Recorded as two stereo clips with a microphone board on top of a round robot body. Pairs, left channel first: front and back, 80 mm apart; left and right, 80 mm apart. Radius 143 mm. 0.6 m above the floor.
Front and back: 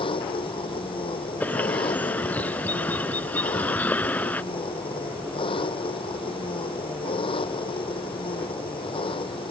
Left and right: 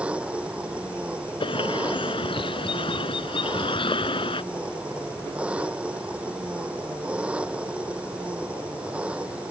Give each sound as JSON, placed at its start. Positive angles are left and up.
{"t": 0.0, "sound": "an engine running", "azimuth_deg": -15}
{"t": 1.4, "sound": "a bird", "azimuth_deg": 70}